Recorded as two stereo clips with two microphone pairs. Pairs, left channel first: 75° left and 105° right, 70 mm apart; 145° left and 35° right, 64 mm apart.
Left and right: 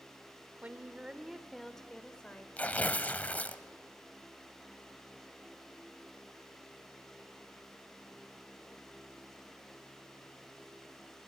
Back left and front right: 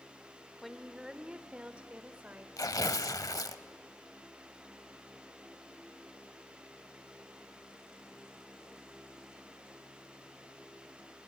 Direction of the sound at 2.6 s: 145° left.